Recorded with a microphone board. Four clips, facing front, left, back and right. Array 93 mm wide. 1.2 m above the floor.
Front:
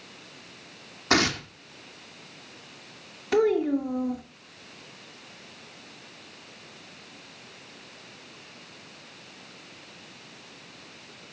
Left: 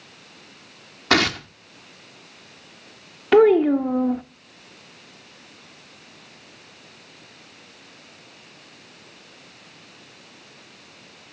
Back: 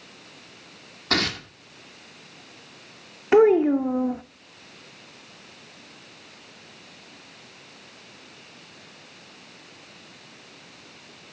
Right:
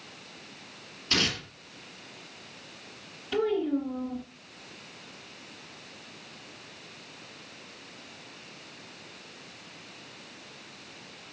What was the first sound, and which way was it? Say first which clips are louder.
Tearing paper: left 10 dB, front 2 dB; 75° left.